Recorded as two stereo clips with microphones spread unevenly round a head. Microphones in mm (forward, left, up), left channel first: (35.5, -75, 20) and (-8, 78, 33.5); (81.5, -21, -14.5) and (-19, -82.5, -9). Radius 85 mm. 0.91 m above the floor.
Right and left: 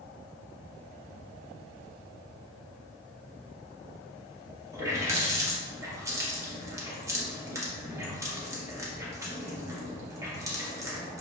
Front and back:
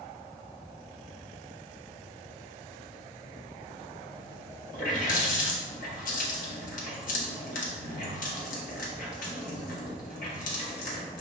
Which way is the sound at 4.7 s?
35° left.